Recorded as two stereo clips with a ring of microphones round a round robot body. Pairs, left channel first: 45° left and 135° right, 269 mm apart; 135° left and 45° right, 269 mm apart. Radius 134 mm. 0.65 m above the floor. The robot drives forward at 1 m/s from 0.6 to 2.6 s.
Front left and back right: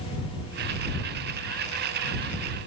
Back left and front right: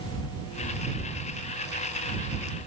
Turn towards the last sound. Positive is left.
No sound to turn to.